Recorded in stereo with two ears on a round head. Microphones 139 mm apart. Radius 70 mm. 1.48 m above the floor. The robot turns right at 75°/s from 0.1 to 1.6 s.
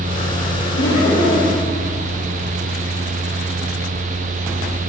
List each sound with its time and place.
0.8 s laughter: 90° left, 4.5 m; by 1.7 s 155° left, 4.5 m